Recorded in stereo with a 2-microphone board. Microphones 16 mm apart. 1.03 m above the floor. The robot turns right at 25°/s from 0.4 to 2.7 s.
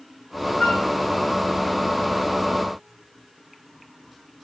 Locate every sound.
0.6 s a flute: 55° left (ahead or behind), 1.3 m